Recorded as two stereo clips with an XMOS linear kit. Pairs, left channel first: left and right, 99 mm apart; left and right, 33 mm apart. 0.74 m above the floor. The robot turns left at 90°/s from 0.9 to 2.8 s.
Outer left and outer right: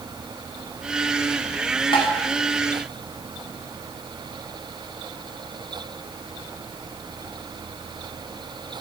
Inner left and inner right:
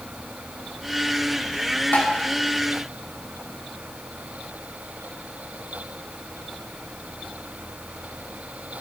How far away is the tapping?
About 2 m.